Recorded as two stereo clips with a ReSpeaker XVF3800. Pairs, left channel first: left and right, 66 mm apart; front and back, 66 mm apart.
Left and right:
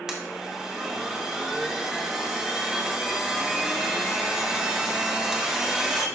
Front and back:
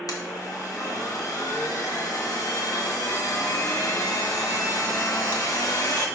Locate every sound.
0.1 s a blender: 10° right, 1.1 m